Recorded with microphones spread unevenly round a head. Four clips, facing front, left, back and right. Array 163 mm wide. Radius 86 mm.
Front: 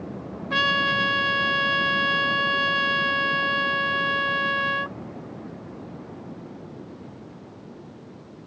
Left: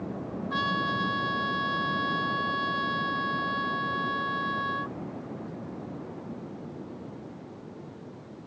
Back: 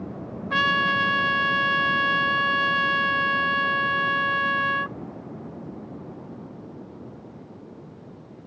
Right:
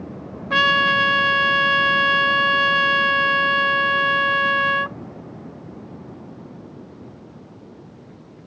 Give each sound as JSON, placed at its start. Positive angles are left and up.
{"t": 0.5, "sound": "a trumpet", "azimuth_deg": -90}